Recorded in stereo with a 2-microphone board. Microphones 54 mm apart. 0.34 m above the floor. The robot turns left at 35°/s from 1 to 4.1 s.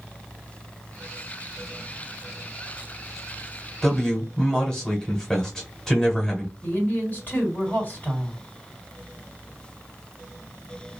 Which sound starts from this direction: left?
A woman speaking, at 6.6 s.